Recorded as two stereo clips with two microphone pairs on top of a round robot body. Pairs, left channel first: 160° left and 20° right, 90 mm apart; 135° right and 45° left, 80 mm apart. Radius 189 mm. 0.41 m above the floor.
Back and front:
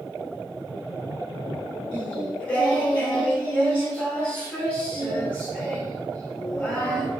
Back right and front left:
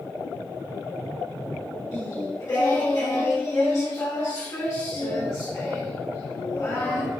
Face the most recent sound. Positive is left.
turn(degrees=-140)